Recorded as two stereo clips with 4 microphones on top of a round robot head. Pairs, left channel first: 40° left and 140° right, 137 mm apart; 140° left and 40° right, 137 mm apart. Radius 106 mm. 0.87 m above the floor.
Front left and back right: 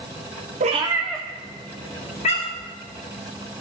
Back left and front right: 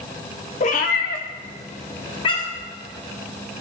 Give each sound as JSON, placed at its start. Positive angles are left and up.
{"t": 0.6, "sound": "a cat meowing", "azimuth_deg": -175, "distance_m": 0.6}